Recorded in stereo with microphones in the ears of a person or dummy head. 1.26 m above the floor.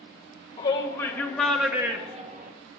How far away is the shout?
About 1.9 m.